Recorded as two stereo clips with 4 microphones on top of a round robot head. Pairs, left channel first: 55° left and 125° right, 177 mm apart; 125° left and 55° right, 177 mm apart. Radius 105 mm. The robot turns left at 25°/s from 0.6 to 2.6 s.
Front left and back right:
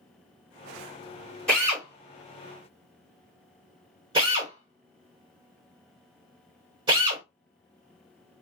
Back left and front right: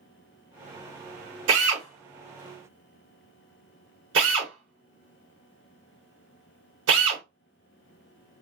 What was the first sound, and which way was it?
A drill, 35° right.